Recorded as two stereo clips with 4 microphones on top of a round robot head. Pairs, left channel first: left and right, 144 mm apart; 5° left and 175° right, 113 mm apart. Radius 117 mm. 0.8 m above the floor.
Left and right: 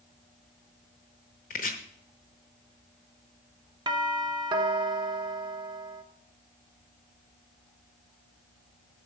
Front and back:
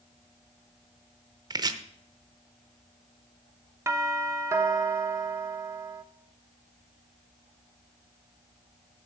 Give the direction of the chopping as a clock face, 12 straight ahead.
8 o'clock.